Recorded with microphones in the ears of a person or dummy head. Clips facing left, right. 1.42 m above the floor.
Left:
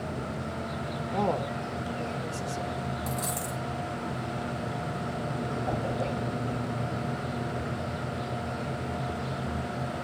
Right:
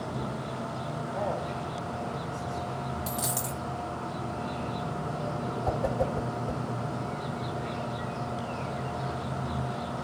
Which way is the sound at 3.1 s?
10° right (ahead or behind).